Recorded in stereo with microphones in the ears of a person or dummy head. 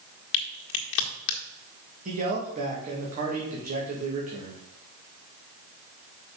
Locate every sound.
0.3 s a crack: 60° left (ahead or behind), 1.6 m
2.0 s a man speaking: 40° right (ahead or behind), 2 m